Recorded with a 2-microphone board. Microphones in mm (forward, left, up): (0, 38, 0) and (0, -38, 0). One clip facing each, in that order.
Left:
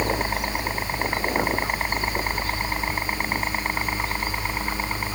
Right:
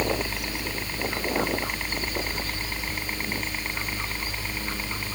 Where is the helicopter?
45° left (ahead or behind).